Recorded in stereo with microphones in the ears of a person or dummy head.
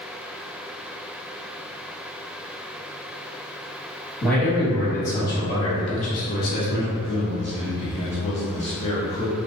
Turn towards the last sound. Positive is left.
turn(degrees=30)  # may be behind; listen again after turning